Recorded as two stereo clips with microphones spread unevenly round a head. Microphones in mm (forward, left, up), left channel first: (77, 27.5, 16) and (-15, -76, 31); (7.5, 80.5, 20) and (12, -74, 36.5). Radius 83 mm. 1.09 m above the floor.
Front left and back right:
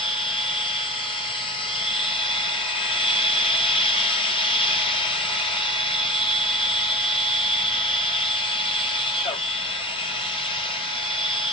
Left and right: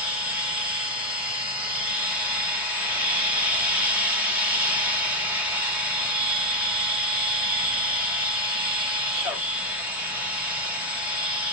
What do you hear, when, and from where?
0.0 s a machine running: 5° right, 0.9 m